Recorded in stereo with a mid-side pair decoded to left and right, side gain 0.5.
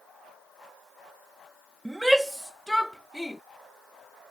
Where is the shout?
10° right; by 3.4 s 5° left.